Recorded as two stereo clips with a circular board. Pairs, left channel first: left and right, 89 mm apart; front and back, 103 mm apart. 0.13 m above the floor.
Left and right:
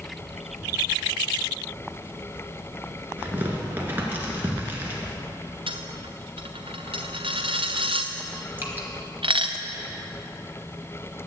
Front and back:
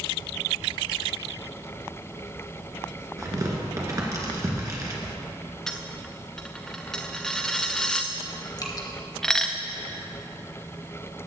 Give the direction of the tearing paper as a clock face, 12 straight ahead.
5 o'clock.